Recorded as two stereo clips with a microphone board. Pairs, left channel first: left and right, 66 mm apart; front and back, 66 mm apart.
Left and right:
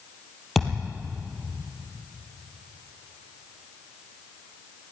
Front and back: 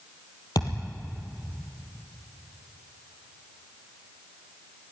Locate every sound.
0.6 s a thud: straight ahead, 3 m